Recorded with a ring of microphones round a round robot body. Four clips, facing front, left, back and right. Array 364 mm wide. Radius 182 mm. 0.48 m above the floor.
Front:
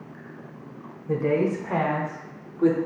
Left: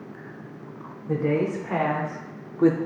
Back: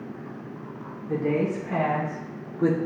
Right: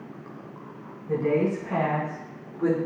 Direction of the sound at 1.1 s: 20° left.